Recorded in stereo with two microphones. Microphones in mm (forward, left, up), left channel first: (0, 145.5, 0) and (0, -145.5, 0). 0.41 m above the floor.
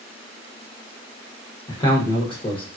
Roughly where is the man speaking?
Centre.